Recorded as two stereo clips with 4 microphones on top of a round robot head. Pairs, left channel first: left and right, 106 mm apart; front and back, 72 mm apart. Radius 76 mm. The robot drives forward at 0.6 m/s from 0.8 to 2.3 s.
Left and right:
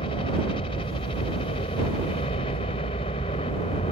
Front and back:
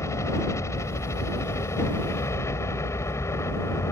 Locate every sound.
0.0 s a helicopter: 45° left